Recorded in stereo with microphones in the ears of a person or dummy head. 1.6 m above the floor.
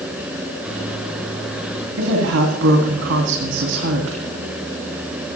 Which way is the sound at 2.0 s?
70° right (ahead or behind).